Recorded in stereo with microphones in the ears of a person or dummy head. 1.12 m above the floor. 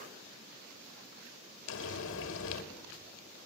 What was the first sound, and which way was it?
Frying, 75° left (ahead or behind).